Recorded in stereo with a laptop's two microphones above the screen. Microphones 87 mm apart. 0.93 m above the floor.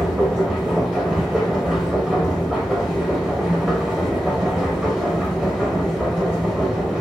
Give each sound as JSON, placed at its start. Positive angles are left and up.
{"t": 0.0, "sound": "a machine running", "side_deg": -10, "distance_m": 1.2}